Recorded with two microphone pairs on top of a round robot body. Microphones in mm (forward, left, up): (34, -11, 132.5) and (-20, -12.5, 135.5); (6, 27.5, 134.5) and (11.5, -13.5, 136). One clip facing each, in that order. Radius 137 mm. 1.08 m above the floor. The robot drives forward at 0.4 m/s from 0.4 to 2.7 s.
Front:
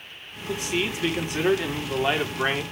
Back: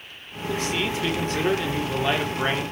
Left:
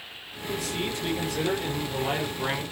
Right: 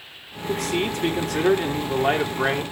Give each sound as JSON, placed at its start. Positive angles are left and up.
{"t": 0.5, "sound": "a man speaking", "azimuth_deg": -70, "distance_m": 4.5}